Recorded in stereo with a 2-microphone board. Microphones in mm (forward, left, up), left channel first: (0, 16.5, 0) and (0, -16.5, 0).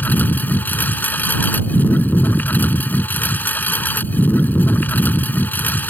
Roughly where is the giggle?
I don't hear a giggle.